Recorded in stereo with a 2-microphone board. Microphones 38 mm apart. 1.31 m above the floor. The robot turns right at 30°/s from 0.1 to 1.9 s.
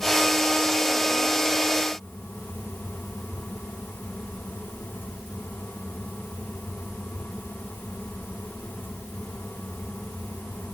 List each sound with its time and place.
Only background noise.